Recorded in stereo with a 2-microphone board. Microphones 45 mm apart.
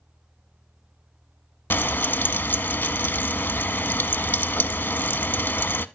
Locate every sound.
1.7 s frying: 50° left (ahead or behind), 0.5 m